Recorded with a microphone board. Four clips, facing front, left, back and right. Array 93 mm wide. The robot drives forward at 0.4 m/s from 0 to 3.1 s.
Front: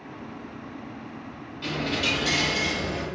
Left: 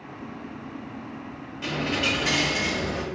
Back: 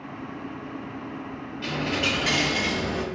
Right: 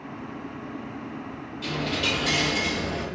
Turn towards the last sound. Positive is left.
turn(degrees=165)